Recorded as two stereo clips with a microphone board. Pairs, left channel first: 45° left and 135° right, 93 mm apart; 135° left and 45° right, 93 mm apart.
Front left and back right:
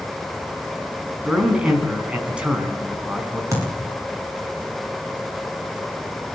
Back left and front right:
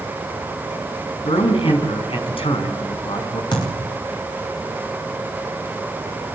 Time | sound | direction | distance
1.2 | a man speaking | 145° left | 5 m
3.5 | a thud | 170° left | 10 m